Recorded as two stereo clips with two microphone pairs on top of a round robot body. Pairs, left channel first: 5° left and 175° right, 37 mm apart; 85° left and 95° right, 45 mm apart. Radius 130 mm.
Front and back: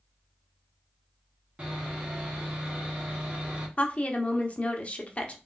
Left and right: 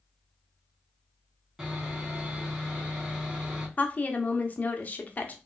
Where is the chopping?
No chopping in this recording.